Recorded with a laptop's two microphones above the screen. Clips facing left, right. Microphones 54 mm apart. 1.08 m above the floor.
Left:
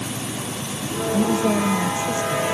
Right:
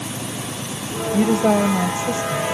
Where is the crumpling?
No crumpling in this recording.